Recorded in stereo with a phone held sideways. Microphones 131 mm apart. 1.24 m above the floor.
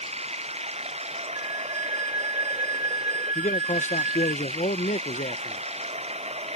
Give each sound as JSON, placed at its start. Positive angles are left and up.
{"t": 0.0, "sound": "running water", "side_deg": -55}
{"t": 1.4, "sound": "a flute", "side_deg": -20}
{"t": 3.4, "sound": "a man speaking", "side_deg": 65}